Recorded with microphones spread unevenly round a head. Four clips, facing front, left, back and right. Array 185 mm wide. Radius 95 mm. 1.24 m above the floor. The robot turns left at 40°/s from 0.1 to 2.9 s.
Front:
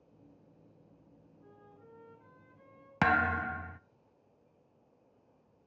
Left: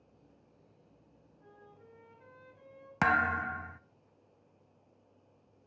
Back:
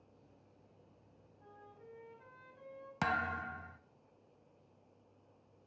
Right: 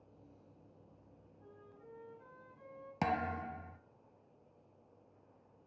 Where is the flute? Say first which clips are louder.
Left 1 dB, back 1 dB; 175° right, 8 m; by 2.9 s 125° left, 8 m.